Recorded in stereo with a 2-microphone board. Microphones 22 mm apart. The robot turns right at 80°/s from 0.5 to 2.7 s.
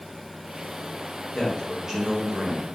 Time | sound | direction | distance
1.3 | a man speaking | 155° left | 1.0 m